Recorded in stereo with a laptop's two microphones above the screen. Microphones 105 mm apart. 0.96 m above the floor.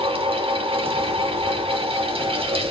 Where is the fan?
65° right (ahead or behind), 1.2 m.